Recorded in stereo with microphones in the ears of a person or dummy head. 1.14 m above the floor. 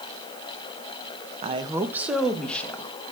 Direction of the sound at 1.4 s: 40° right (ahead or behind).